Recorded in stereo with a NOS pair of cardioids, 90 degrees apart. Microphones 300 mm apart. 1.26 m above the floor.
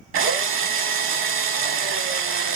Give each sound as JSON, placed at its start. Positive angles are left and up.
{"t": 0.1, "sound": "a drill", "azimuth_deg": -45, "distance_m": 0.8}